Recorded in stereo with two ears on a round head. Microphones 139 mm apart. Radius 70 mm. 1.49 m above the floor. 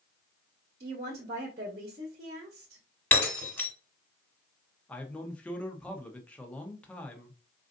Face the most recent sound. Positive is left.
turn(degrees=10)  # may be behind; listen again after turning